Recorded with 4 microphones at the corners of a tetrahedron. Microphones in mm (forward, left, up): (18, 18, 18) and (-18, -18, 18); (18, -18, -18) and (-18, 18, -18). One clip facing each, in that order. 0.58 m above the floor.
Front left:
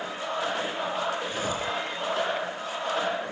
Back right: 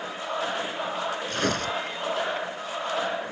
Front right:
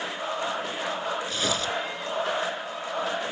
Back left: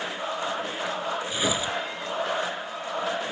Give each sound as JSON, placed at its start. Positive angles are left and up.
{"t": 1.3, "sound": "tearing paper", "azimuth_deg": -150}